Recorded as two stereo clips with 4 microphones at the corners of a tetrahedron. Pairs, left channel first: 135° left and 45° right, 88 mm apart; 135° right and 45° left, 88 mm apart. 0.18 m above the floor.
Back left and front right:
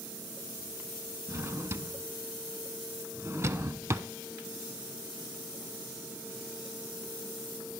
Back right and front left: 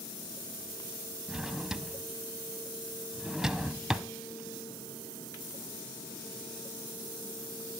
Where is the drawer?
35° right, 0.7 m.